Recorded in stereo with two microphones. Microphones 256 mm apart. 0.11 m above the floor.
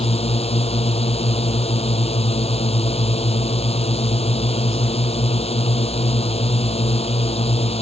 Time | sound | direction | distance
0.0 | a drone | 25° left (ahead or behind) | ?